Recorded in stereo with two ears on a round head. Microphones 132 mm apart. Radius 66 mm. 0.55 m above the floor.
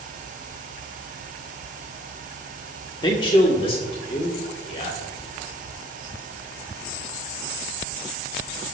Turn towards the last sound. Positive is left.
turn(degrees=45)  # may be behind; listen again after turning